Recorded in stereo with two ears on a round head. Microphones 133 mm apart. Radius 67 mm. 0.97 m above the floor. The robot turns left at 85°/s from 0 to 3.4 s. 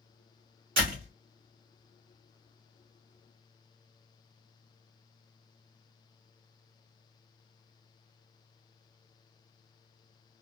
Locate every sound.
0.8 s a door slam: 100° right, 1.8 m; by 1.1 s 130° right, 1.8 m